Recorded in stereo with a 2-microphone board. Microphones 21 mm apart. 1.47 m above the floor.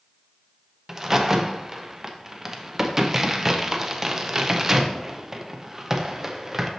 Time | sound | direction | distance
0.9 | a crack | 20° right (ahead or behind) | 0.6 m